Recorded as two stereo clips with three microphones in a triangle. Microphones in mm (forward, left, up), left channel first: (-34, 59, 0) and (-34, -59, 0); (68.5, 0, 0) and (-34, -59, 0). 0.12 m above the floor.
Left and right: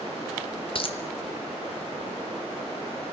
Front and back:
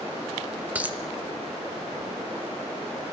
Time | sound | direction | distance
0.8 | a dropped coin | 130° left | 1.8 m